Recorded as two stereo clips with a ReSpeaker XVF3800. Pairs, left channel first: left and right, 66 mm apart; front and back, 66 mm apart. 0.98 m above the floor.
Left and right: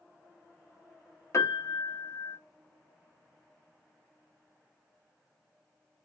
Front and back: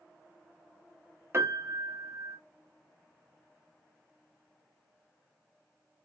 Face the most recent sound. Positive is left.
turn(degrees=130)